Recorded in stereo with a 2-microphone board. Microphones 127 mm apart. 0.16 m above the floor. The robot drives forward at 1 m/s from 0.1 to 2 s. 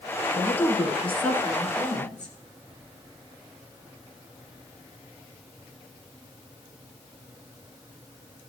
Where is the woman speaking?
15° left (ahead or behind), 1.1 m; by 2.4 s 10° left (ahead or behind), 2 m.